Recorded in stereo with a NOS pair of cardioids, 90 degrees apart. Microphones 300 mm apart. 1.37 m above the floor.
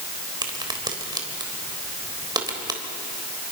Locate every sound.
0.4 s a crack: 15° right, 3.5 m